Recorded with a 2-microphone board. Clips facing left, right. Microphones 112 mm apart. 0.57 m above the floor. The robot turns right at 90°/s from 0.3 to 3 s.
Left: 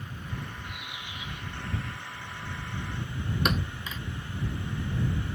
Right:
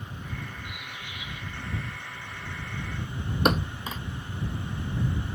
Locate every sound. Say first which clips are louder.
0.7 s a bird: even; 15° right; by 2.0 s 105° left
3.5 s a thud: right 8 dB; 40° right (ahead or behind)